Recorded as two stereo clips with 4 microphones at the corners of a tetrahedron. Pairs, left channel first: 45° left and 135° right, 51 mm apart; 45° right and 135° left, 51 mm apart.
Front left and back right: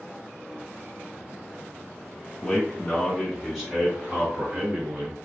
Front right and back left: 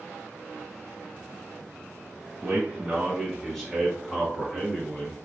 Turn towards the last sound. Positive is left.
turn(degrees=-110)